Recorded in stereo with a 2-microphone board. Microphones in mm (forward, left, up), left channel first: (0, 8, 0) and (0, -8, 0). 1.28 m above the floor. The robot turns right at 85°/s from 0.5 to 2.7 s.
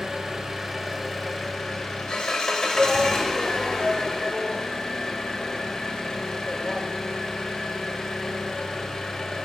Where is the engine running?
55° right, 1.6 m; by 9.4 s 130° left, 1.6 m.